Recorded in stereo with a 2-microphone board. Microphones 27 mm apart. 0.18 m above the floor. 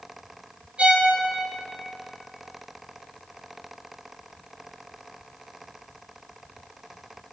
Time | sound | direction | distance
0.8 | a violin | 50° right (ahead or behind) | 1.7 m